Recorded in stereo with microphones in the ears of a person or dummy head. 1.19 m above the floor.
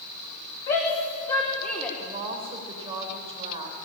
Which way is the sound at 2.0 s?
30° right (ahead or behind).